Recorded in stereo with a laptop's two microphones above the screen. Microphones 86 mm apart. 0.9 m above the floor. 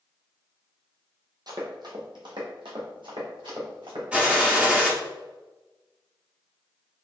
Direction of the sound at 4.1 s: 15° right (ahead or behind).